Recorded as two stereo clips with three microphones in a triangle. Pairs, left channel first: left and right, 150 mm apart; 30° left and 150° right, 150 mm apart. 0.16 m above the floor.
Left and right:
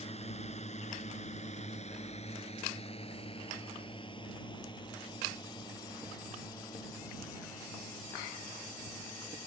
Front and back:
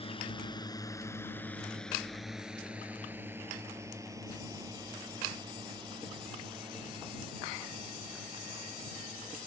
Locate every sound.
0.0 s a drone: 65° left; by 9.5 s 160° left